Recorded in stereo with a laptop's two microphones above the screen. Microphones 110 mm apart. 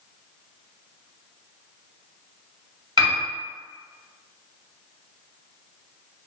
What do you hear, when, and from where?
3.0 s a piano: 40° right (ahead or behind), 1.5 m